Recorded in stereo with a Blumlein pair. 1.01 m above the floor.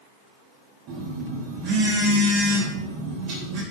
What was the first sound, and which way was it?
A phone buzzing, 40° right.